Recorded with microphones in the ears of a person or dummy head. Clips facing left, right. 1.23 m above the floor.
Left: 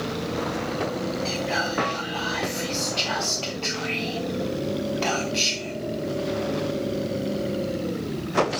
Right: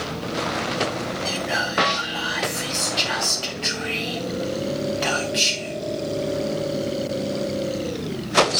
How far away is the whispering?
About 1.7 m.